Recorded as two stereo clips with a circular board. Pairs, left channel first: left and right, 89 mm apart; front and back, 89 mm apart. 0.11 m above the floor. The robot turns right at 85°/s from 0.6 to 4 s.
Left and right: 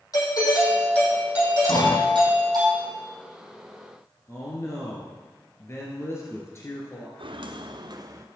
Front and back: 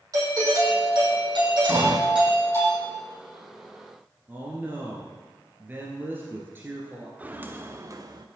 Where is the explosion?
120° left, 3 m; by 2.0 s 150° left, 3 m.